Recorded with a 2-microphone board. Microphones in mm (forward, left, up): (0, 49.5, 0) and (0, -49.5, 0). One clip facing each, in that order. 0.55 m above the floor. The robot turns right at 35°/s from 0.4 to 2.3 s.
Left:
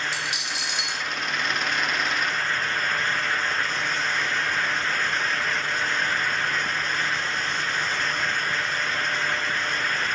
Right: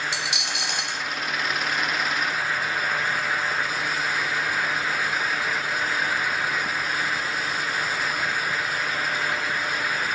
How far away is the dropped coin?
About 0.9 m.